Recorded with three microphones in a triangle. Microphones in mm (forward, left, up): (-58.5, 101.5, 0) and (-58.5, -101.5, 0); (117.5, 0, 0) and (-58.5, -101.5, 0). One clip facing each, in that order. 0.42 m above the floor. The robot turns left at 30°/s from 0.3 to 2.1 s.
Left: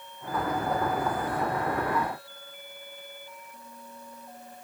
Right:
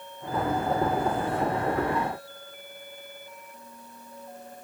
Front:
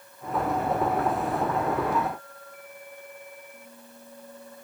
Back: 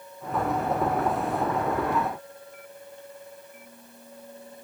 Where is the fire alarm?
No fire alarm in this recording.